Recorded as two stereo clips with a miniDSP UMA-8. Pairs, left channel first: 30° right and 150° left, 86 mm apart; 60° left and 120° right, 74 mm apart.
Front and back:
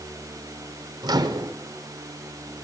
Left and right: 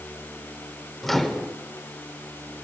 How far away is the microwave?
About 1.5 m.